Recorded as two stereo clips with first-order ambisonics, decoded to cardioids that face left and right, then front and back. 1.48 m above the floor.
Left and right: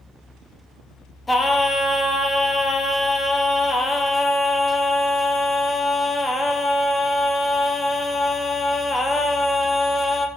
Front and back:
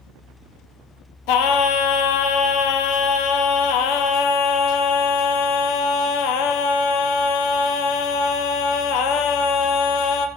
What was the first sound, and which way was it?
Singing, 10° left.